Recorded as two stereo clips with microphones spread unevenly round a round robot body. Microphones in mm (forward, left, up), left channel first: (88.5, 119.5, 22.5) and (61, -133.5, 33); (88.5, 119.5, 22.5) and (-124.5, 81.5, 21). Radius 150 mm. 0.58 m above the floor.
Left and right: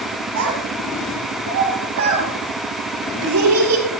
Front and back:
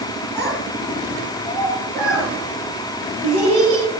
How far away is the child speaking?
About 3.5 m.